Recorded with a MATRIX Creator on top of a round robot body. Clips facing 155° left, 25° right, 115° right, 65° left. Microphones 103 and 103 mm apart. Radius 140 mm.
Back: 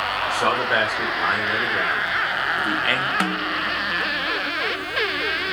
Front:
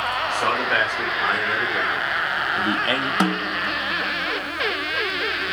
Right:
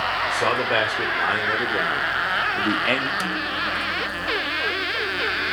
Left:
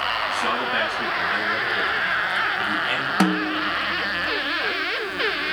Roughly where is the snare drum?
Ahead left.